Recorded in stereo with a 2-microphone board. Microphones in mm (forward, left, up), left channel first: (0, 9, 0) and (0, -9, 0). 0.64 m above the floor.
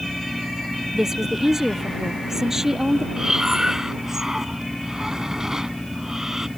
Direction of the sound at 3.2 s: 20° right (ahead or behind).